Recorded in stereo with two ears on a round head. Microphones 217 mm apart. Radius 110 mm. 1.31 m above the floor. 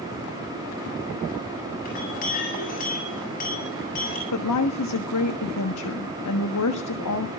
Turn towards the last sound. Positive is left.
turn(degrees=85)